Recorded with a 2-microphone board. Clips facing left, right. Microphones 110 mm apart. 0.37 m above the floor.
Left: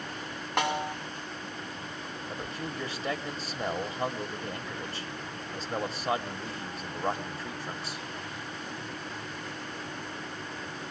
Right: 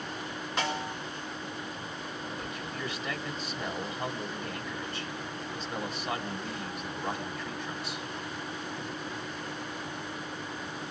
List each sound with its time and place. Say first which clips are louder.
0.6 s a snare drum: left 4 dB; 65° left (ahead or behind), 3 m
2.3 s a man speaking: left 1 dB; 35° left (ahead or behind), 1.5 m